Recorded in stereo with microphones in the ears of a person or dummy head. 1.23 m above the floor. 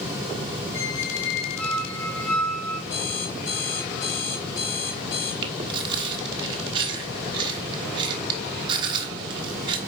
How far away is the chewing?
About 1.3 m.